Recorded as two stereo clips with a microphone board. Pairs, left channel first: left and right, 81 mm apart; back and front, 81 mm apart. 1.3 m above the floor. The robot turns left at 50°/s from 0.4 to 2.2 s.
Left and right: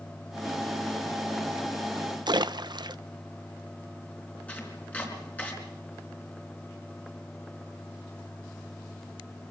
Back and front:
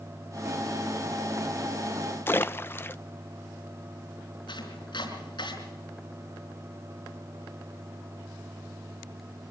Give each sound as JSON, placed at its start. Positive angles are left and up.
{"t": 2.3, "sound": "a splash", "azimuth_deg": -115, "distance_m": 0.6}
{"t": 4.5, "sound": "chopping", "azimuth_deg": 160, "distance_m": 4.0}